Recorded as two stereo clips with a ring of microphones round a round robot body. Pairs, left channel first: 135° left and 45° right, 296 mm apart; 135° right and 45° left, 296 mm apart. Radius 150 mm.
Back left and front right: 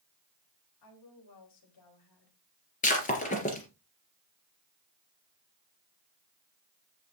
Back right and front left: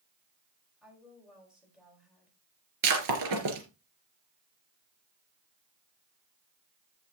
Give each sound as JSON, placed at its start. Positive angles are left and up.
{"t": 0.8, "sound": "a woman speaking", "azimuth_deg": 130, "distance_m": 5.0}
{"t": 2.8, "sound": "breaking glass", "azimuth_deg": 70, "distance_m": 3.0}